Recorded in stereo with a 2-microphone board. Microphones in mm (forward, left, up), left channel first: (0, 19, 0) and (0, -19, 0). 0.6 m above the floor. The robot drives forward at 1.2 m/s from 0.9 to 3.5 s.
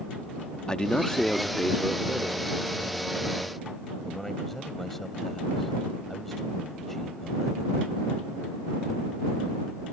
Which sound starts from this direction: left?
A man speaking, at 0.7 s.